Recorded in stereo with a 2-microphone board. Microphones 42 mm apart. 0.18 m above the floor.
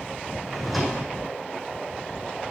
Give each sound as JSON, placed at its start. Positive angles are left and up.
{"t": 0.5, "sound": "a drawer", "side_deg": 0, "distance_m": 2.0}